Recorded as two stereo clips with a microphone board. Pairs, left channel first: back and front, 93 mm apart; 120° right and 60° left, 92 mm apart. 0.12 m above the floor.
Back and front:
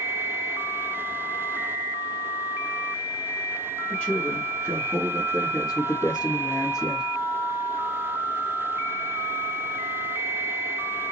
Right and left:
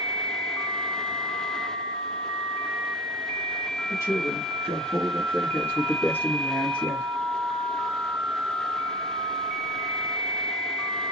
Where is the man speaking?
105° right, 1.7 m; by 7.1 s 170° left, 2 m.